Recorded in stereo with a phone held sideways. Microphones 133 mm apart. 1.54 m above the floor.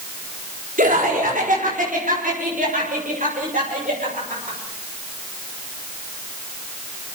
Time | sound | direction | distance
0.8 | laughter | 85° right | 4 m